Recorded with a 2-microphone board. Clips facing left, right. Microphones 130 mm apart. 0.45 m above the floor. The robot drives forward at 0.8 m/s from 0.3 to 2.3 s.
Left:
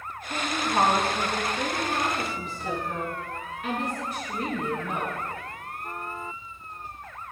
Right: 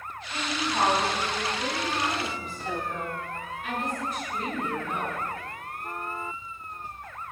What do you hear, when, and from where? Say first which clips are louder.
0.3 s a woman speaking: left 3 dB; 75° left (ahead or behind), 5.5 m